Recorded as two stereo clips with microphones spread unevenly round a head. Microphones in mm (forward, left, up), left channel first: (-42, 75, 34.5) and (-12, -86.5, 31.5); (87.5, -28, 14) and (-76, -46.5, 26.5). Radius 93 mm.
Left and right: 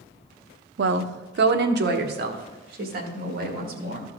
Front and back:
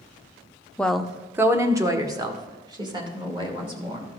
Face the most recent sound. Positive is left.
turn(degrees=-115)